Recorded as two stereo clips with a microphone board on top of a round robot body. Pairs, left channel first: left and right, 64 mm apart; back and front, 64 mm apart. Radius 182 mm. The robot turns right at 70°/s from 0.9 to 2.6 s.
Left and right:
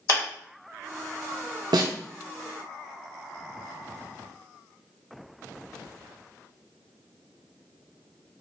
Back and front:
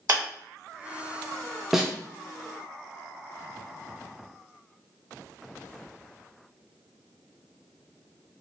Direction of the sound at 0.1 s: 50° left.